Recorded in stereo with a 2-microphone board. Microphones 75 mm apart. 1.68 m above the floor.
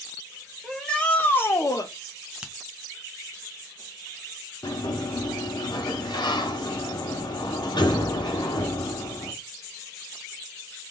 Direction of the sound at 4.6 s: 80° left.